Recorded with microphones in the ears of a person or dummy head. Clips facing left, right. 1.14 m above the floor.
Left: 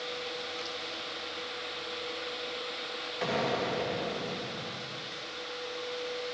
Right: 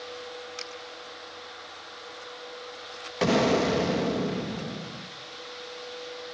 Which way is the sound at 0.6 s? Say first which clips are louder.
Left 1 dB; 60° right (ahead or behind).